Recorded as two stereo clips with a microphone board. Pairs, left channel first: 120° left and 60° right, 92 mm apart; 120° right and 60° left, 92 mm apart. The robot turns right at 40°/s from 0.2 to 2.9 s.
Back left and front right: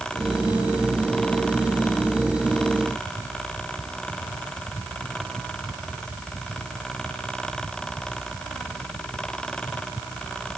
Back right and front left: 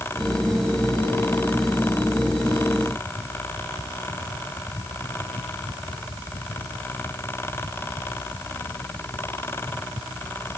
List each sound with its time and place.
Only background noise.